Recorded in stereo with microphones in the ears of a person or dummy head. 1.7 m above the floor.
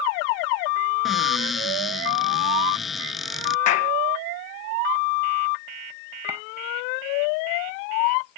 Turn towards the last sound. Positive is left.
turn(degrees=-10)  # may be behind; listen again after turning